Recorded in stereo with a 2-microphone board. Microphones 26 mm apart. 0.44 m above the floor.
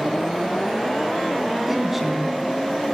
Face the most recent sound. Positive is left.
turn(degrees=-10)  # may be behind; listen again after turning